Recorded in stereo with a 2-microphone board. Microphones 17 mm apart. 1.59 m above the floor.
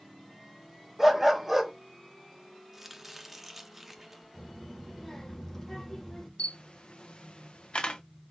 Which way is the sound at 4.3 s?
20° left (ahead or behind).